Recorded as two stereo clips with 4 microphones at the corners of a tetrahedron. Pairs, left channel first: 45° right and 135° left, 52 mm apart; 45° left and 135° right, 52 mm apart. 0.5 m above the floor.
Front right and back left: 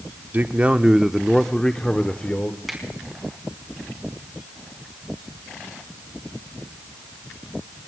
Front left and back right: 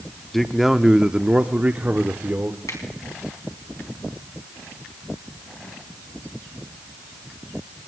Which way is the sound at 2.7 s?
50° left.